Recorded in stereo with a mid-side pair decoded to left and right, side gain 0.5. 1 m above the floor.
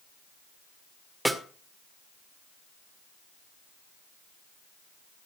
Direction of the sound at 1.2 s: 5° right.